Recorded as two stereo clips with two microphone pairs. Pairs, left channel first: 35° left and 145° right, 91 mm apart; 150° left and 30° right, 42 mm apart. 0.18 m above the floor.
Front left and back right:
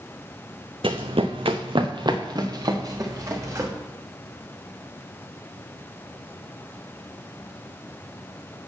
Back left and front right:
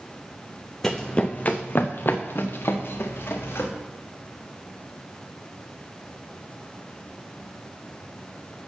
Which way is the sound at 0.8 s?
130° right.